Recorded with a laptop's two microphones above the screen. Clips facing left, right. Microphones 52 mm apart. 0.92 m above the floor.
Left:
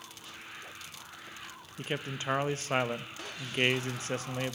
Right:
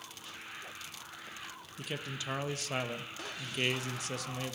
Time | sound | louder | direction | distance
1.8 | a man speaking | left 4 dB | 30° left (ahead or behind) | 0.5 m